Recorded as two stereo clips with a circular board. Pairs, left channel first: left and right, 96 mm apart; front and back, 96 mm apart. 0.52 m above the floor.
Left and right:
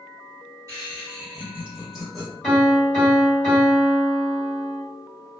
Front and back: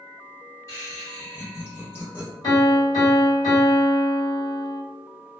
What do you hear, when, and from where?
0.7 s laughter: 45° right, 1.8 m; by 2.3 s 20° left, 1.4 m
2.4 s a piano: straight ahead, 1.9 m